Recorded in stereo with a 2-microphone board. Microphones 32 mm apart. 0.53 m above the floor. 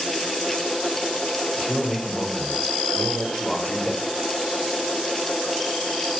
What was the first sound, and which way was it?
A man speaking, 25° left (ahead or behind).